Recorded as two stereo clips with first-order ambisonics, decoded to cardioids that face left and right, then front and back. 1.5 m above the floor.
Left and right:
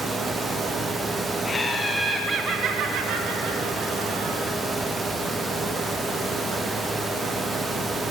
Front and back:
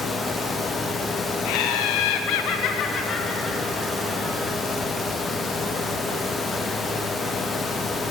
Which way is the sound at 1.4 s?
20° left.